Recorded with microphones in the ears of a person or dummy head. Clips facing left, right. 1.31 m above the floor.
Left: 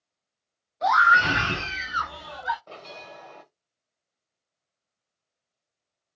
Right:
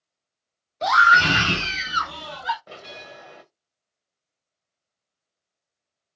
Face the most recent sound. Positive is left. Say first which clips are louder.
# right 1 dB
turn(degrees=-20)  # may be behind; listen again after turning